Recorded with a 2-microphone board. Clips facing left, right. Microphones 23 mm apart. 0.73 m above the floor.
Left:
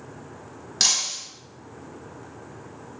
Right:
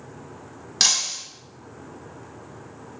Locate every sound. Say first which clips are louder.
0.8 s breaking glass: right 1 dB; 10° right (ahead or behind), 0.7 m